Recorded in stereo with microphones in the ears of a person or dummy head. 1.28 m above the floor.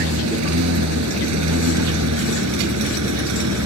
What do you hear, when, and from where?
0.0 s a lawn mower: 80° right; by 3.6 s 75° right (ahead or behind)